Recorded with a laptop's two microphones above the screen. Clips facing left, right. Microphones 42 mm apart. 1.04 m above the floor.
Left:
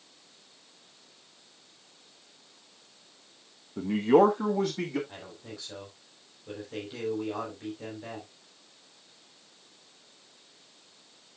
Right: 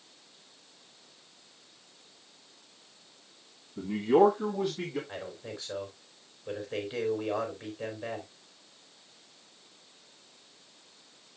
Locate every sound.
3.8 s a man speaking: 65° left (ahead or behind), 1.0 m; by 5.0 s 80° left, 2.5 m
5.1 s a man speaking: 25° right (ahead or behind), 3.5 m